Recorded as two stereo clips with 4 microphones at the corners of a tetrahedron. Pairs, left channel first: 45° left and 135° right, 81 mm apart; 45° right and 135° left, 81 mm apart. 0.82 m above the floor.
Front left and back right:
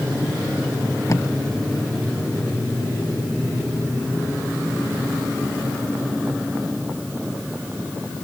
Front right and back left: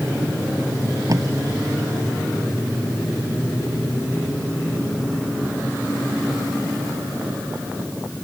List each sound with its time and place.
1.1 s tape being pulled: 95° left